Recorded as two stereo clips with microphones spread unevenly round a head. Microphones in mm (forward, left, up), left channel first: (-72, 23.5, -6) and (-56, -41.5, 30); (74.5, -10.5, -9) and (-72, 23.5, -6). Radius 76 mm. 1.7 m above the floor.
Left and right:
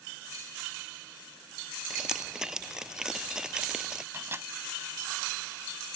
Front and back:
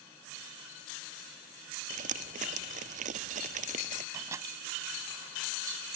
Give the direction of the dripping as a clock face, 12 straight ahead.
5 o'clock.